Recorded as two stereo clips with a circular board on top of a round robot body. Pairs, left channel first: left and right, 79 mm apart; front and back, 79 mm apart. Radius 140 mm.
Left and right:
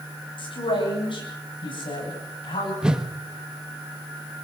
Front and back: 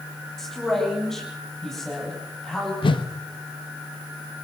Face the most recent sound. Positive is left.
turn(degrees=-10)